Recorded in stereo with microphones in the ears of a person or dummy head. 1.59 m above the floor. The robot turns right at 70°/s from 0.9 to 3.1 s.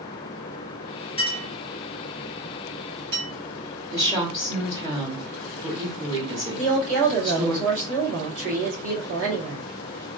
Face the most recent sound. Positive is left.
turn(degrees=-65)  # may be behind; listen again after turning